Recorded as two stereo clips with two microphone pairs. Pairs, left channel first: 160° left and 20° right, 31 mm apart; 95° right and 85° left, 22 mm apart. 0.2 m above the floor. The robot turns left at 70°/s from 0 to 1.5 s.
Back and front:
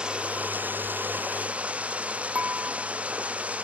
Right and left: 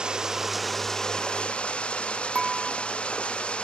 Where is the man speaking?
I don't hear a man speaking.